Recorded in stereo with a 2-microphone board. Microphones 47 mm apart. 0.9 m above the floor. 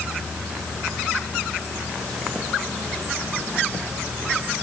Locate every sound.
Only background noise.